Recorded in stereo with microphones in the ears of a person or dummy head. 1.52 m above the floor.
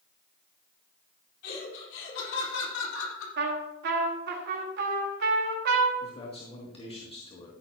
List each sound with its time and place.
1.4 s laughter: 65° left (ahead or behind), 4 m; by 3.3 s 80° left, 3 m
3.4 s a trumpet: 60° right (ahead or behind), 1.4 m
6.0 s a man speaking: 35° left (ahead or behind), 2.5 m